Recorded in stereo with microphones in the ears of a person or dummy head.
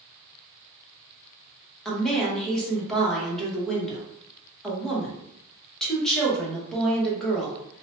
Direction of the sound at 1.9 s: 5° left (ahead or behind).